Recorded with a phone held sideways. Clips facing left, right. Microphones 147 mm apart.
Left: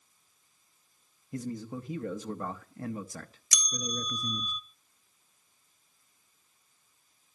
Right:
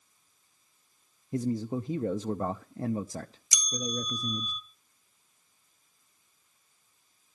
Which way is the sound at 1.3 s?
30° right (ahead or behind).